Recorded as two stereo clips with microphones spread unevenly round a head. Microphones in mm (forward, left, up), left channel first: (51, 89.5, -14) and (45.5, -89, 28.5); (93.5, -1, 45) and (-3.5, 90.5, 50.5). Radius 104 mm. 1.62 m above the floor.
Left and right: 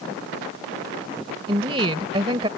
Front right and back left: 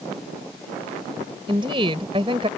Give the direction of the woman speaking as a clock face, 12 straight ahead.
5 o'clock.